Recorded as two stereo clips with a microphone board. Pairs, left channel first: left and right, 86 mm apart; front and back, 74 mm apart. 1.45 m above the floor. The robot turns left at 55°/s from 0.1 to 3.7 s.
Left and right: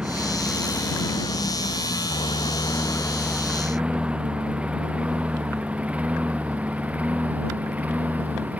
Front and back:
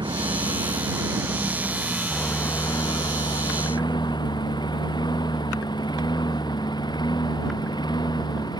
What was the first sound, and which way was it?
A lawn mower, 170° right.